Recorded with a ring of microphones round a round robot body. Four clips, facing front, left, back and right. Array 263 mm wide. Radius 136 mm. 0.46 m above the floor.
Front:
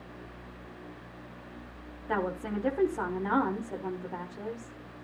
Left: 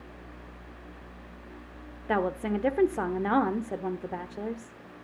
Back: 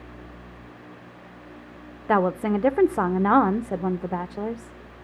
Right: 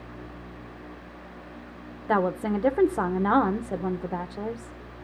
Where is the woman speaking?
165° right, 1.0 m.